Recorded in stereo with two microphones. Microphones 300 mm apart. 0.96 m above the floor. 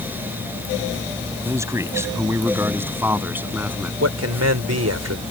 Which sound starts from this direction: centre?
A man speaking, at 1.4 s.